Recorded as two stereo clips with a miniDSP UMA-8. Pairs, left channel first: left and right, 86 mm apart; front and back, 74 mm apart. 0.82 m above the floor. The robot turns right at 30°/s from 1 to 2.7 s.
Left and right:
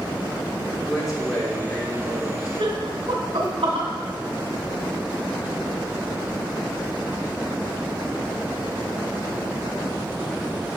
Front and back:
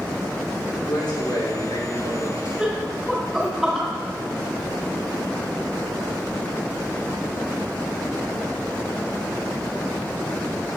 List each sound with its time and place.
0.8 s a man speaking: 5° right, 2.5 m; by 2.5 s 40° left, 2.5 m
2.6 s laughter: 95° right, 2.5 m; by 3.9 s 90° right, 2.5 m